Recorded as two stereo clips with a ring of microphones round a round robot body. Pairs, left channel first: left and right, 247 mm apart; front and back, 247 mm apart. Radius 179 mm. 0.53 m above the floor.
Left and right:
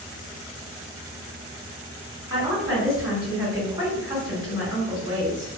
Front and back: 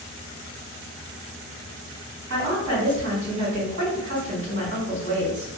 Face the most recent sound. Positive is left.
turn(degrees=-160)